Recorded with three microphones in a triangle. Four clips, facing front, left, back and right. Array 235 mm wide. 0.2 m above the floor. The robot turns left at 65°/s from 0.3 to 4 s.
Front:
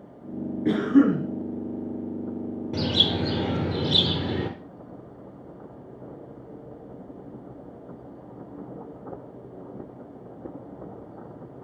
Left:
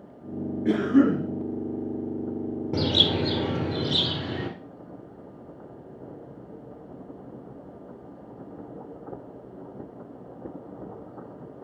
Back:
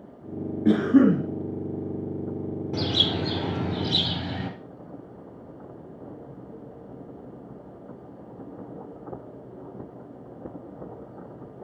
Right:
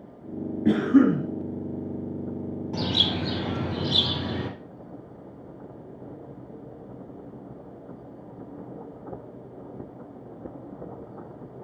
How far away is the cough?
About 3.5 m.